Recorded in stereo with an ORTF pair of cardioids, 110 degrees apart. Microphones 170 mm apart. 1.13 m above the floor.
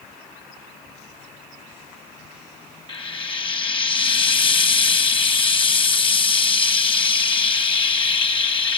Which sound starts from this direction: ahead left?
Frying, at 2.9 s.